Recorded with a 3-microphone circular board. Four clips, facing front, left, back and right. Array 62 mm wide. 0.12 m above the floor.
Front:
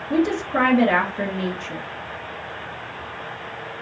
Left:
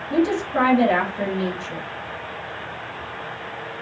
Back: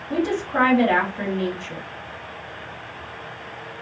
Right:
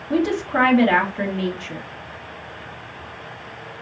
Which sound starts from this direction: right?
A woman speaking, at 0.1 s.